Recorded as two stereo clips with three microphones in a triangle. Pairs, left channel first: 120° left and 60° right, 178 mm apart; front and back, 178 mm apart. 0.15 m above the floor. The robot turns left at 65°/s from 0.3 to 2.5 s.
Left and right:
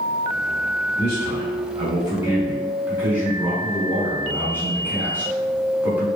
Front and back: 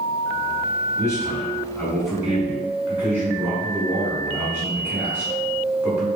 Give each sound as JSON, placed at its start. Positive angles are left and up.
{"t": 1.0, "sound": "a man speaking", "azimuth_deg": -20, "distance_m": 1.2}